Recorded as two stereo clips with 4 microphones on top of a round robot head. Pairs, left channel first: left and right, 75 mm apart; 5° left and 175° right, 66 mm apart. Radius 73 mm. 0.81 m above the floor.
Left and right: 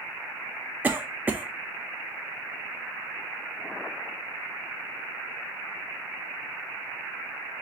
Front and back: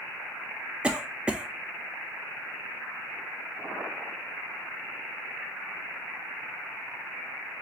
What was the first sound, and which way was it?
A cough, 120° right.